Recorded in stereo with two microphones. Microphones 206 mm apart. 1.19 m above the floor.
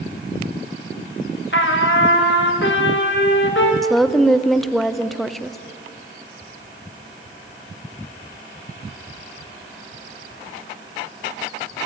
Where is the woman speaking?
Centre (ahead or behind), 0.5 m.